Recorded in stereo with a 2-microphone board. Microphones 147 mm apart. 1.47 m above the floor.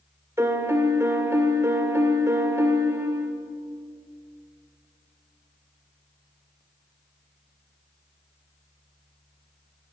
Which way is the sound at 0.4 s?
20° right (ahead or behind).